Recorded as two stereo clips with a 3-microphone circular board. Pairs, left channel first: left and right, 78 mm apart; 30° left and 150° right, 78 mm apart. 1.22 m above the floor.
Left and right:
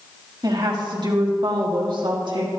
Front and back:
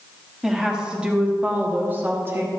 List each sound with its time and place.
0.4 s a woman speaking: 65° right, 2.5 m; by 2.5 s 95° right, 2.5 m